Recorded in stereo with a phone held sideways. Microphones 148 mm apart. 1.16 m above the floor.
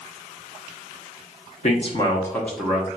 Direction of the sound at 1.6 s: 50° left (ahead or behind).